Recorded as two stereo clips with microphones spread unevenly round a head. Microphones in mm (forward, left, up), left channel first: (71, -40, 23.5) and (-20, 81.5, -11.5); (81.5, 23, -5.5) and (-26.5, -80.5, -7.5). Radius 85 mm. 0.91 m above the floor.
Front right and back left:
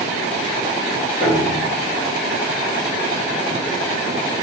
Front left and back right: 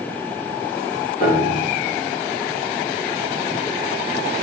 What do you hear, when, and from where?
1.2 s a piano: 10° left, 1.5 m